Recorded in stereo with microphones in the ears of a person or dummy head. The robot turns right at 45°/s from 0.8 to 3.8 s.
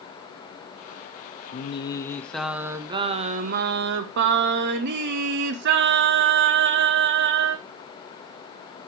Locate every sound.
1.5 s singing: 140° left, 0.6 m; by 7.6 s 120° right, 0.6 m